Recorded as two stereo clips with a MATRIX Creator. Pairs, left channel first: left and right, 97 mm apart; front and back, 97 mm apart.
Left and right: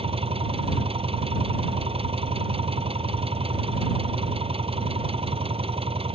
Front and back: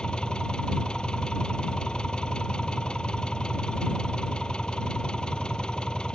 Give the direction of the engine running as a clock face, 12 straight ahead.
3 o'clock.